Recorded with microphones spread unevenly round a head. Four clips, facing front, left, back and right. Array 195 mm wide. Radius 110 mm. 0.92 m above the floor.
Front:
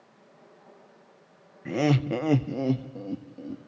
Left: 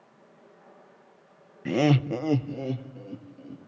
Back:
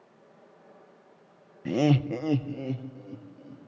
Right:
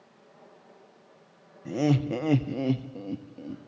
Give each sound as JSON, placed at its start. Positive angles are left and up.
{"t": 1.6, "sound": "laughter", "azimuth_deg": 85, "distance_m": 0.8}